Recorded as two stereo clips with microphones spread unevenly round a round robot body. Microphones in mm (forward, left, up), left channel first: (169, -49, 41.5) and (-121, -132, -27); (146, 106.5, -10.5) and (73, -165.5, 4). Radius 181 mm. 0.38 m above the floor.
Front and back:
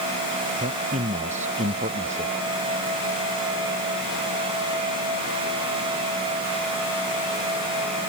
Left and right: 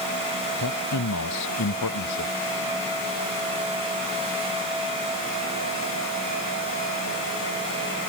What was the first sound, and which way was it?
A man speaking, 125° left.